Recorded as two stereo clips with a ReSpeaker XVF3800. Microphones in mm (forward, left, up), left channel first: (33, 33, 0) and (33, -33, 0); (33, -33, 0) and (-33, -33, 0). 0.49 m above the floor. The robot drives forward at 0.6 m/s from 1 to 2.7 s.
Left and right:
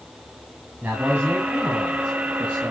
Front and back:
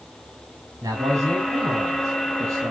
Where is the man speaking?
155° right, 3.5 m; by 2.7 s 160° right, 4.5 m.